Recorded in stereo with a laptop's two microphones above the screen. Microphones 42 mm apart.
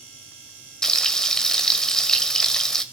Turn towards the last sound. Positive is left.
turn(degrees=15)  # may be behind; listen again after turning